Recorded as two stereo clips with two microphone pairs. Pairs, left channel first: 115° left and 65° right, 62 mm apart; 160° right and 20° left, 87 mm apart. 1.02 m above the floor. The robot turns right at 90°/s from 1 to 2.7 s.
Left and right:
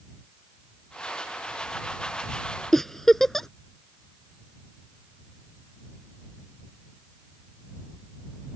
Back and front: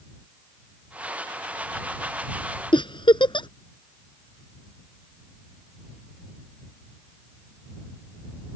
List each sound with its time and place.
2.7 s a giggle: 160° right